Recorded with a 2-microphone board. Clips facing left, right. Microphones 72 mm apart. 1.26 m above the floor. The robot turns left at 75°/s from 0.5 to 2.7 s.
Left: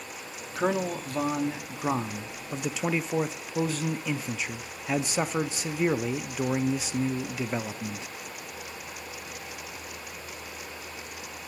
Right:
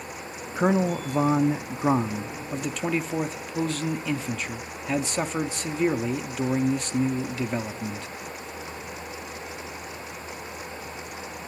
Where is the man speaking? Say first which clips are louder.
Right 4 dB; 10° right (ahead or behind), 0.5 m; by 8.1 s 5° left (ahead or behind), 0.5 m.